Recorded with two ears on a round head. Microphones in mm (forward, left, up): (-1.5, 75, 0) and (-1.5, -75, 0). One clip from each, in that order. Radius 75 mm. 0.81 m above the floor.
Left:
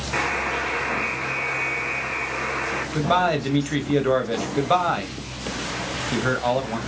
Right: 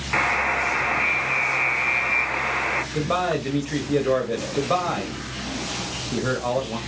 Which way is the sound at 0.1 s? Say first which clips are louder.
Right 3 dB; 45° right (ahead or behind).